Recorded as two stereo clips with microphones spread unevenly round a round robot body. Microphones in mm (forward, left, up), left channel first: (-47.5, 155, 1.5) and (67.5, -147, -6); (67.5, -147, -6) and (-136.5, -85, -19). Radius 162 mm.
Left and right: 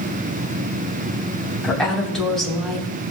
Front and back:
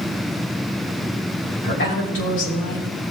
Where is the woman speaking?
20° left, 2.5 m.